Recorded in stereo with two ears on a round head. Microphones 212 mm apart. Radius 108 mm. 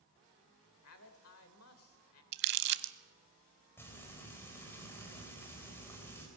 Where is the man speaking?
65° left (ahead or behind), 2 m.